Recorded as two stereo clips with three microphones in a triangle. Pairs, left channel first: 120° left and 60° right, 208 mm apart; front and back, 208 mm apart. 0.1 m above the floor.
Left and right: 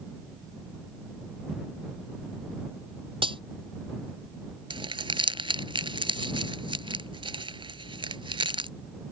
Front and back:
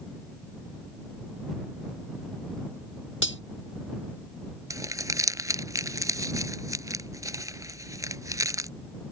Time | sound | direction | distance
3.2 | cutlery clinking | 5° left | ?
4.7 | crumpling | 115° right | ?